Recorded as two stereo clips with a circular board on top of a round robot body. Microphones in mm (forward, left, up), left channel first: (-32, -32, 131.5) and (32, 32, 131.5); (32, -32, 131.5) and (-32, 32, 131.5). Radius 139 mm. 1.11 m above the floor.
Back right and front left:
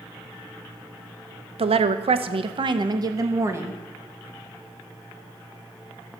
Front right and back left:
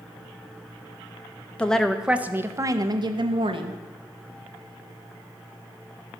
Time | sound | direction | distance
1.6 | a woman speaking | 35° left | 0.9 m